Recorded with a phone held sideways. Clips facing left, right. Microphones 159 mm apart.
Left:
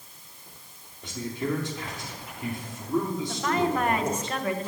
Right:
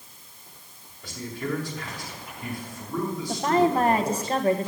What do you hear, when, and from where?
1.0 s a man speaking: 20° left (ahead or behind), 3.5 m
3.3 s a woman speaking: 35° right (ahead or behind), 1.0 m